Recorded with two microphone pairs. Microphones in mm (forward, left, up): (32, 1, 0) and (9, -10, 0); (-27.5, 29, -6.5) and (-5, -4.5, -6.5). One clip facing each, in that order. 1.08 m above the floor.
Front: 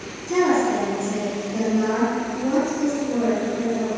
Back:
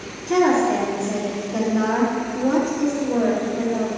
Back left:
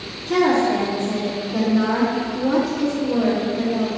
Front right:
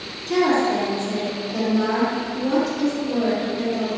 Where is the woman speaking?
165° right, 1.7 m.